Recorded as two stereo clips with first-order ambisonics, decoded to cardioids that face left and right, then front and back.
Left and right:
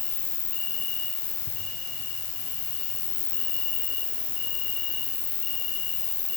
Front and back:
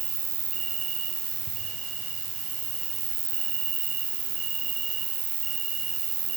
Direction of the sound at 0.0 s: 125° left.